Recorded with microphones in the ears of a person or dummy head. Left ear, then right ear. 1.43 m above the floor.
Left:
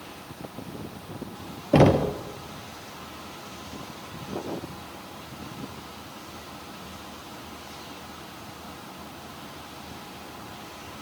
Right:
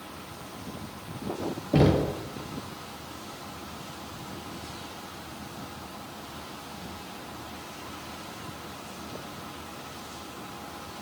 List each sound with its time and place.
1.7 s knocking: 30° left (ahead or behind), 0.5 m